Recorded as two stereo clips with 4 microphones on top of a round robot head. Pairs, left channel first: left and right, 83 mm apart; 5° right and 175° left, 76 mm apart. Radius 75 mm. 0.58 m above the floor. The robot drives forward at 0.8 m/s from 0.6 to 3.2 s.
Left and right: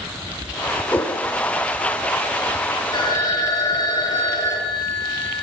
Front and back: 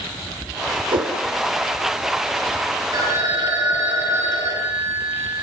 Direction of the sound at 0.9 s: 165° left.